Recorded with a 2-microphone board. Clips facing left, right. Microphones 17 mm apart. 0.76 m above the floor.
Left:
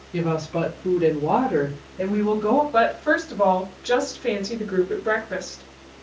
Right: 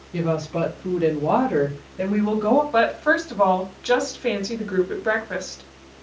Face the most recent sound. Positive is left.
turn(degrees=-35)  # may be behind; listen again after turning